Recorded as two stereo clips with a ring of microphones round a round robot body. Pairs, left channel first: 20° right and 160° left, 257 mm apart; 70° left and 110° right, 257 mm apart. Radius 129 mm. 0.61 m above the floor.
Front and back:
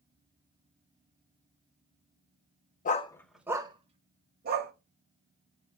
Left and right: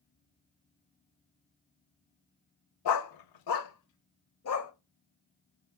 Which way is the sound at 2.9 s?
40° left.